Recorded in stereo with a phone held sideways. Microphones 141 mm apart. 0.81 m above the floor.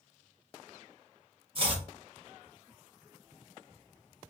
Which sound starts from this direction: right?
Chopping, at 1.6 s.